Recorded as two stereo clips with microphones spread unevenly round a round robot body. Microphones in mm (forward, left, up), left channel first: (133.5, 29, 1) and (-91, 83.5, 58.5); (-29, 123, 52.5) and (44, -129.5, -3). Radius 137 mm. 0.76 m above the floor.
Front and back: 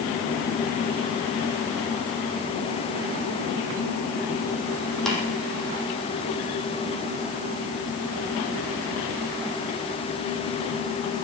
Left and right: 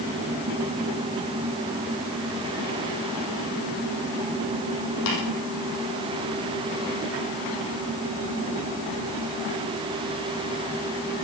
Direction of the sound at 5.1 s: 75° left.